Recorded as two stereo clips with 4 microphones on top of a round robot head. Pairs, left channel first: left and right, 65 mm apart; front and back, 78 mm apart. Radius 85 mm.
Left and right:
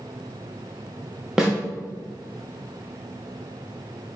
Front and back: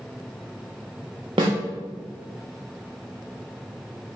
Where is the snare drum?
175° right, 0.7 m.